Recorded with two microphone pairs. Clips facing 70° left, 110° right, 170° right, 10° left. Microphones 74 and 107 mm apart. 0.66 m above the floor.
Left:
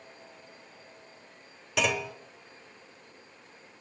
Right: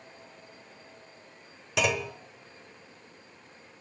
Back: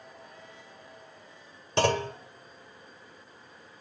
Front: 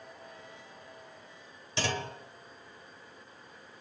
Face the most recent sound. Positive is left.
turn(degrees=165)